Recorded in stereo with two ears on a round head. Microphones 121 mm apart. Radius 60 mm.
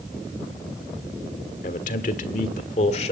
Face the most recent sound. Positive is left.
turn(degrees=50)  # may be behind; listen again after turning